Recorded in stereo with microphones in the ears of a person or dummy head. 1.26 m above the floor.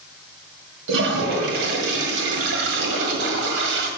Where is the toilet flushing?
60° right (ahead or behind), 1.7 m.